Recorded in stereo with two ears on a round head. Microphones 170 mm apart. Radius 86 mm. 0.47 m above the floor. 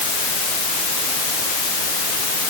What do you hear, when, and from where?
Only background noise.